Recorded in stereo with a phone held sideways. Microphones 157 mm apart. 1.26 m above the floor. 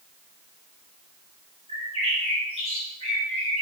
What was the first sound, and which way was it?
A bird, 40° left (ahead or behind).